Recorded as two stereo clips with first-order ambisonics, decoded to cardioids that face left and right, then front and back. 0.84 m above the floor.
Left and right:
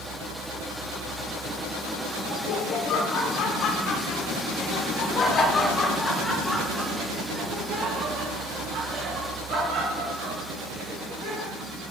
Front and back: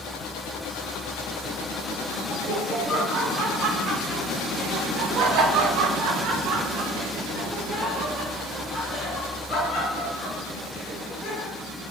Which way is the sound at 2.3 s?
125° left.